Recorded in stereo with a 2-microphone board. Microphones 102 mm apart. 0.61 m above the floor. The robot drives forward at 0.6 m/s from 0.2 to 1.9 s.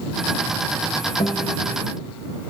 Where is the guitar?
80° left, 1.2 m; by 1.6 s 70° left (ahead or behind), 1.2 m.